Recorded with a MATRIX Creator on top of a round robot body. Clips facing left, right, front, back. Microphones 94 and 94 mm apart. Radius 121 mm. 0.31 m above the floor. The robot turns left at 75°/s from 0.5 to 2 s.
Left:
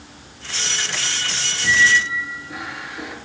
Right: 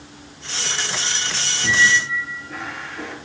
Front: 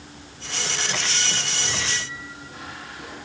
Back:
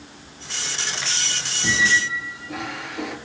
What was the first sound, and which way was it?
A squeak, 160° right.